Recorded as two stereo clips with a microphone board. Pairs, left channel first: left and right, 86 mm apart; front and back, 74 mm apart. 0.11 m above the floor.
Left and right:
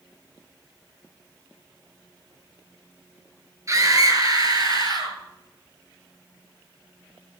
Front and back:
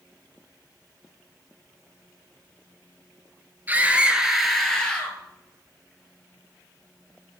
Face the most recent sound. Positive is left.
turn(degrees=-70)